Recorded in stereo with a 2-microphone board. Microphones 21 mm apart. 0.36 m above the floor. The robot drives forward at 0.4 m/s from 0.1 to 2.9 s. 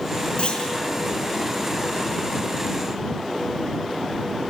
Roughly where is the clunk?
Left.